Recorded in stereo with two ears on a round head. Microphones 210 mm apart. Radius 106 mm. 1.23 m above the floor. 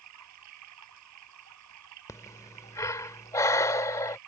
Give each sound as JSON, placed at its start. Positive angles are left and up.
{"t": 0.0, "sound": "running water", "side_deg": -85}
{"t": 2.1, "sound": "breathing", "side_deg": 15}